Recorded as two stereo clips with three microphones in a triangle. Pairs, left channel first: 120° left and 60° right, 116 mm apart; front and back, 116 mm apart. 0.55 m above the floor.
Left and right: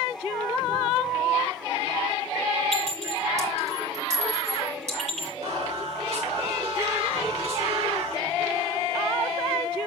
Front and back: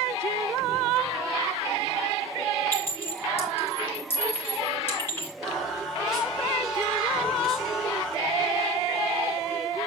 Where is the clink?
70° right, 7 m.